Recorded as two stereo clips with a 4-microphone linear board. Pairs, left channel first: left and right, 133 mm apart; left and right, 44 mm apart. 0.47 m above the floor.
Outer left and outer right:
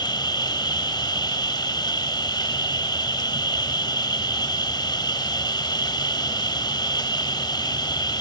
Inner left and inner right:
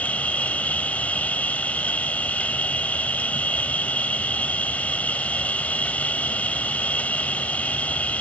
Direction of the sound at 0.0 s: 35° left (ahead or behind).